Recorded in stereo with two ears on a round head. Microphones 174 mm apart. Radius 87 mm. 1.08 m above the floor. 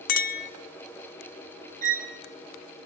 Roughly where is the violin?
Right.